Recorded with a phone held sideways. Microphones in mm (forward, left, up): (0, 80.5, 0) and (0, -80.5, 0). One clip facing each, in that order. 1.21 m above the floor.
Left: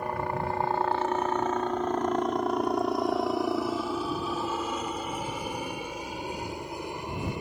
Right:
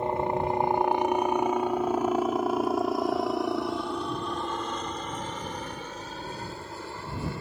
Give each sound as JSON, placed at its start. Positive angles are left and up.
{"t": 0.0, "sound": "a helicopter", "side_deg": -25}